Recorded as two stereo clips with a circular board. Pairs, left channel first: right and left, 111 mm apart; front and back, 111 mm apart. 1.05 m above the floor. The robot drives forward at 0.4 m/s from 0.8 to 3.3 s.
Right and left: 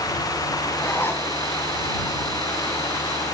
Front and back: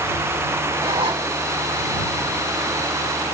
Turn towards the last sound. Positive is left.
turn(degrees=-165)